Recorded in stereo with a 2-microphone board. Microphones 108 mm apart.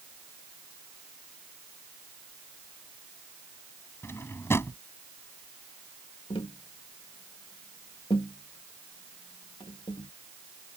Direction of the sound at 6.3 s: 55° left (ahead or behind).